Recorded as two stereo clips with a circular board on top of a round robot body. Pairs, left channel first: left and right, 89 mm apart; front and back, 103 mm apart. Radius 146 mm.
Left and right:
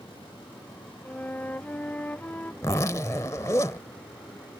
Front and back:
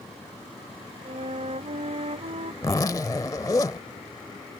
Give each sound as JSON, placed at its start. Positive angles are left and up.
{"t": 1.1, "sound": "a flute", "azimuth_deg": 165}
{"t": 2.6, "sound": "a zipper", "azimuth_deg": 50}